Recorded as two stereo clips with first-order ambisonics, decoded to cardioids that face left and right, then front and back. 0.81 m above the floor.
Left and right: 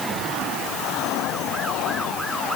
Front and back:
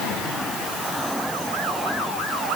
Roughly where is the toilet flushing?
I don't hear a toilet flushing.